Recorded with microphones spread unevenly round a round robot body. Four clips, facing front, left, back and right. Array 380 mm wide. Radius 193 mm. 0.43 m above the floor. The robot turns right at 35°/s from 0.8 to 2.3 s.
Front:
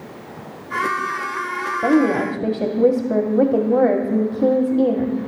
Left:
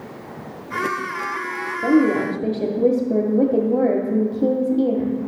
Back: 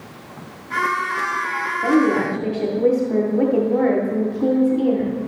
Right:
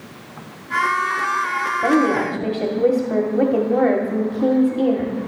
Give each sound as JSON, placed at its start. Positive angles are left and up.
{"t": 1.8, "sound": "a woman speaking", "azimuth_deg": -5, "distance_m": 1.2}